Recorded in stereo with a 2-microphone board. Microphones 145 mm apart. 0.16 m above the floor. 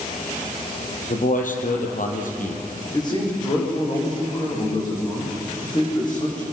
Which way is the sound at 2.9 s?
30° left (ahead or behind).